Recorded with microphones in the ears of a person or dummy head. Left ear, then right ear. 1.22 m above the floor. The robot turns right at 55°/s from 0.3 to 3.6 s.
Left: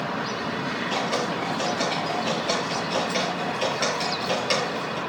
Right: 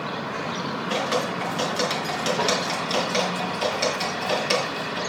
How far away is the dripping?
About 4.5 m.